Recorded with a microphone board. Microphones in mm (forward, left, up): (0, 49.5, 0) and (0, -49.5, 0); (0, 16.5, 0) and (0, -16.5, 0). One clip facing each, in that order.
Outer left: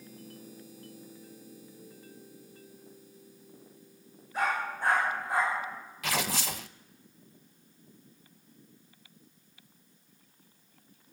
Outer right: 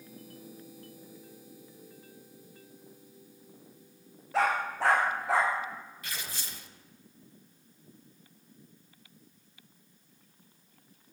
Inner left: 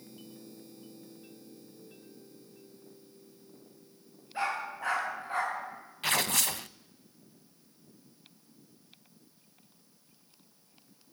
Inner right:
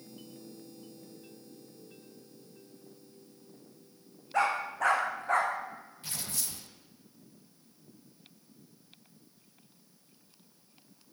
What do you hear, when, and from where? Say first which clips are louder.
4.3 s a dog barking: outer right 3 dB, inner right 4 dB; 85° right, 7.5 m
6.0 s tearing paper: outer left 14 dB, inner left 13 dB; 85° left, 0.7 m